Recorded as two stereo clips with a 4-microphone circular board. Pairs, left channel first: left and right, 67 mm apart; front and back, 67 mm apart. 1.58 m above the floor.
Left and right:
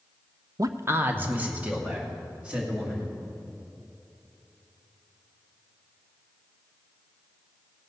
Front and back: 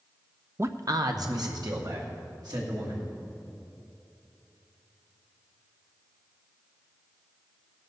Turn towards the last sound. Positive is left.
turn(degrees=-165)